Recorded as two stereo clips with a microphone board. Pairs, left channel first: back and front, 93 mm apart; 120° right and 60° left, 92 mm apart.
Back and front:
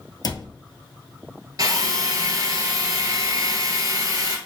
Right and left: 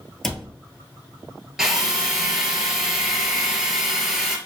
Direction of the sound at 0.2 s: 155° left.